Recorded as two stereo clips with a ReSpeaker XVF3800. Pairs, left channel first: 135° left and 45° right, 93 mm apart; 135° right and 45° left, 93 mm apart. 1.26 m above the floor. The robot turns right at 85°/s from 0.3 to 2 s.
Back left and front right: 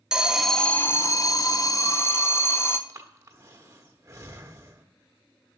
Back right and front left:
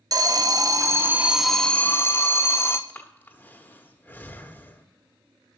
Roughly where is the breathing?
Right.